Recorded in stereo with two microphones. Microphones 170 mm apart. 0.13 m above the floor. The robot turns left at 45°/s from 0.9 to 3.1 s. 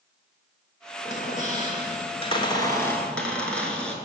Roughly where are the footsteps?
I don't hear footsteps.